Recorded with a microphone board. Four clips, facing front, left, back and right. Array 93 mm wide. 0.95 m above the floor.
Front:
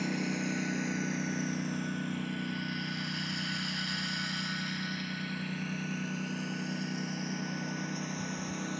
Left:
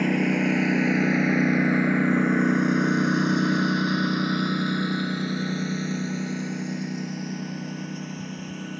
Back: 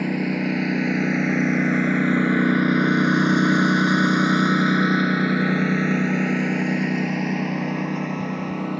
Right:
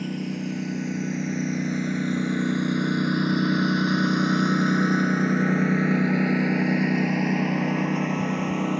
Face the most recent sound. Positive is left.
turn(degrees=-125)